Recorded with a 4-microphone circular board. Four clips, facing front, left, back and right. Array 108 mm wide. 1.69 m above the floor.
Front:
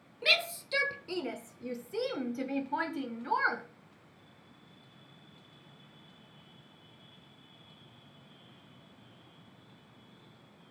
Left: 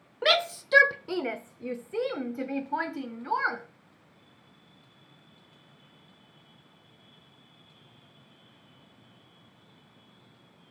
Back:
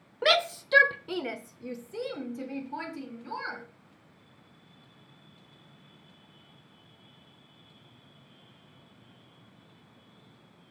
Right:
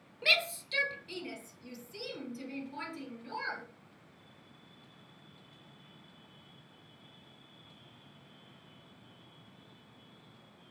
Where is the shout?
145° left, 0.9 m; by 3.6 s 60° left, 1.8 m.